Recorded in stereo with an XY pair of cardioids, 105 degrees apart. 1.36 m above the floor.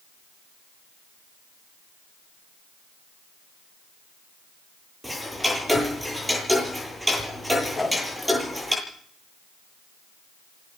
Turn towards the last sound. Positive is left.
turn(degrees=5)